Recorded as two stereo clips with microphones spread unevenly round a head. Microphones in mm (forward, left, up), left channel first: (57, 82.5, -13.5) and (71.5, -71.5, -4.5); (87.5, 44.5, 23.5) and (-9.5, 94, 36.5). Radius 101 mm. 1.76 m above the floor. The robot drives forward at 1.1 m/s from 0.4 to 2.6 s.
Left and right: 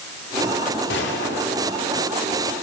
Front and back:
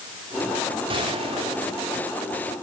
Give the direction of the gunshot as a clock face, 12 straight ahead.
8 o'clock.